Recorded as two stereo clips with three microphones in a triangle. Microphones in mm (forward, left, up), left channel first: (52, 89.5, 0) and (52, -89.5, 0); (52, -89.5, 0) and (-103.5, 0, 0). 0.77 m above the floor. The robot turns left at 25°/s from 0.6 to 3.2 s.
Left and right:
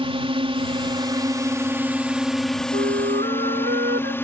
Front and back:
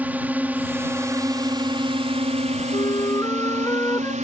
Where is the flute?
90° right; by 4.1 s 105° right.